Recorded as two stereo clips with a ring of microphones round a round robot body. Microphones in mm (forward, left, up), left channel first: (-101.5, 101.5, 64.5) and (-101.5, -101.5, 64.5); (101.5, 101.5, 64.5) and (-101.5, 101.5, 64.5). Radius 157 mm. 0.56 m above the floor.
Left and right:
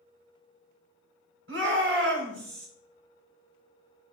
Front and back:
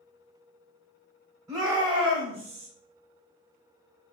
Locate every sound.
1.5 s a shout: 105° right, 3 m; by 2.7 s 115° right, 3 m